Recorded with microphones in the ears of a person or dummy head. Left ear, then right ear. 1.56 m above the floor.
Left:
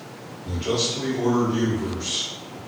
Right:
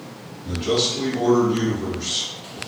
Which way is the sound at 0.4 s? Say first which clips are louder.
Right 3 dB; centre (ahead or behind).